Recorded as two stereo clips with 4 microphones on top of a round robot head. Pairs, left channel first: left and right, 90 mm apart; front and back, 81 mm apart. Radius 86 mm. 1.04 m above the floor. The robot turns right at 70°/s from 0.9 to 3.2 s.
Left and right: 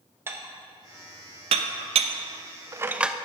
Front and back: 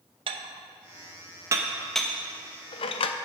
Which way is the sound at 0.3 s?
160° right.